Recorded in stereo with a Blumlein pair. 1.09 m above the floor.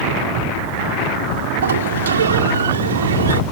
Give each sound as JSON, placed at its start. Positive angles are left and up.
{"t": 1.6, "sound": "a sliding door", "azimuth_deg": -65}